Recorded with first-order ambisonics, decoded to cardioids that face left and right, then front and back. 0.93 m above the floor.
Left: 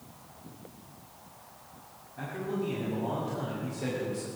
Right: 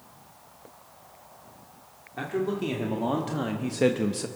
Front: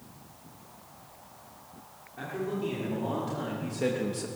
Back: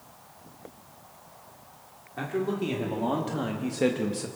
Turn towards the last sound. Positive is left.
turn(degrees=-95)